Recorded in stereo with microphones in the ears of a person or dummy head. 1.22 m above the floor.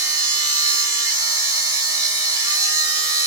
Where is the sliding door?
I don't hear a sliding door.